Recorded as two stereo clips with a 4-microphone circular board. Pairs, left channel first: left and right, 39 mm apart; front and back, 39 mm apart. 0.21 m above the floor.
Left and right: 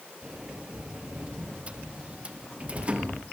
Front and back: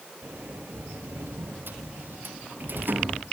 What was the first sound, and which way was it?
A sliding door, 150° right.